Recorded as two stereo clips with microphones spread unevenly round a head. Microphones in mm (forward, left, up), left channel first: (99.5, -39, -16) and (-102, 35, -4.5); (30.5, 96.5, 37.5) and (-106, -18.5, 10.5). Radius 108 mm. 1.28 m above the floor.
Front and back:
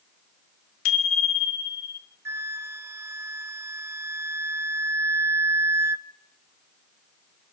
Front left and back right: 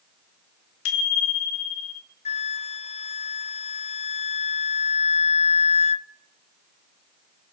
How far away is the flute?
About 0.6 m.